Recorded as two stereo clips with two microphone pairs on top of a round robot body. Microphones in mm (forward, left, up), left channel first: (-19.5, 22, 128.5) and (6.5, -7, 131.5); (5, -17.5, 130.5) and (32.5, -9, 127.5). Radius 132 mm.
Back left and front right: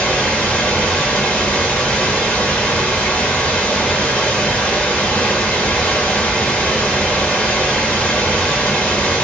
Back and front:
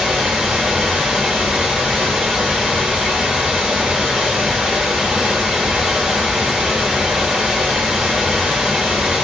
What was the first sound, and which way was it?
Running water, 75° left.